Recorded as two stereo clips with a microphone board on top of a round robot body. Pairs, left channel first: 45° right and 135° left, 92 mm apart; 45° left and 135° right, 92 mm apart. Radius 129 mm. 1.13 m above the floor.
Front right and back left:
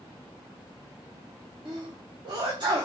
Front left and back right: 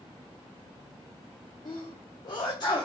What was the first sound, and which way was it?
A sneeze, 90° left.